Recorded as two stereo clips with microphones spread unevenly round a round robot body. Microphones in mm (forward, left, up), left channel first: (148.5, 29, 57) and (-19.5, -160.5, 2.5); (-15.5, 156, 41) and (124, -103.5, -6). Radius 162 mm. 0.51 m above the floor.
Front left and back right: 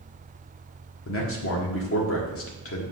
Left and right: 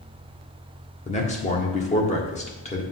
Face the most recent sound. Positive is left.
turn(degrees=50)